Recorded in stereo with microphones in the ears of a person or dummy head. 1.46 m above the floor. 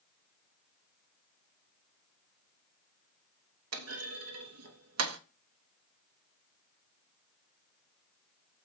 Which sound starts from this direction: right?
A clunk, at 3.7 s.